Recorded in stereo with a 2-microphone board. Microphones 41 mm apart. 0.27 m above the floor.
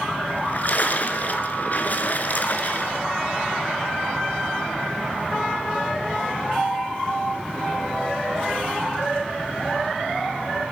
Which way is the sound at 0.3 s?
50° left (ahead or behind).